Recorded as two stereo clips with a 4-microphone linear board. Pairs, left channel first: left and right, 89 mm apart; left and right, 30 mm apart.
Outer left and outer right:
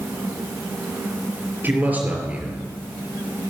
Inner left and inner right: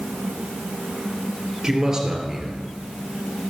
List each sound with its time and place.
1.6 s a man speaking: 25° right (ahead or behind), 3 m; by 3.5 s 5° right (ahead or behind), 3 m